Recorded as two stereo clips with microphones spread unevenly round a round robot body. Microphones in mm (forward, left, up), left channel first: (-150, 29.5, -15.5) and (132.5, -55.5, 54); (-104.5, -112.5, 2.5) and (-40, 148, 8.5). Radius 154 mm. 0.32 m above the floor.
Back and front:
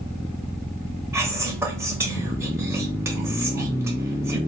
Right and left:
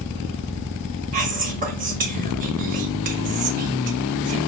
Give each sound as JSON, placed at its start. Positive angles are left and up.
{"t": 1.1, "sound": "whispering", "azimuth_deg": 80, "distance_m": 0.9}